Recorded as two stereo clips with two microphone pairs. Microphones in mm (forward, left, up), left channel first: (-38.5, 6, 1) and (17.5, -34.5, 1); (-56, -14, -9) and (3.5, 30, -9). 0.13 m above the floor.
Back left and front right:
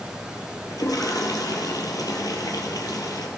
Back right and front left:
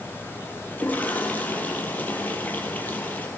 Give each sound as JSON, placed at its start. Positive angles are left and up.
{"t": 0.7, "sound": "a toilet flushing", "azimuth_deg": 150, "distance_m": 2.5}